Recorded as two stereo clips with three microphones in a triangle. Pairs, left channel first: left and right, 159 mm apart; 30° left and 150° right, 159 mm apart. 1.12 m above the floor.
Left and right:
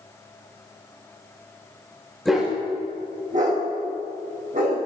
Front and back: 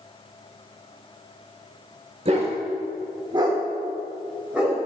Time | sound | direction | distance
2.2 | a dog barking | straight behind | 1.0 m